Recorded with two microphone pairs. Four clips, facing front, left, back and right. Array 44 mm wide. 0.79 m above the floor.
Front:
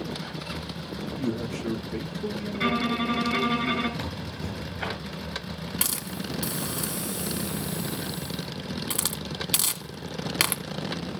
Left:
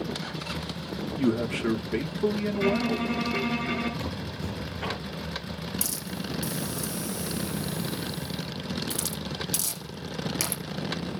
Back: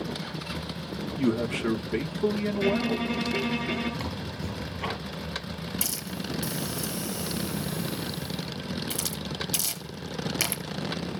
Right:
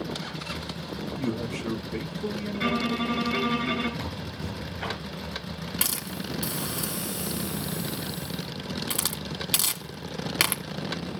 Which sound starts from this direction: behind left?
A man speaking, at 1.2 s.